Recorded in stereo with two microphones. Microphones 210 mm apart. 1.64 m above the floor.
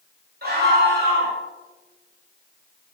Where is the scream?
50° right (ahead or behind), 7 m.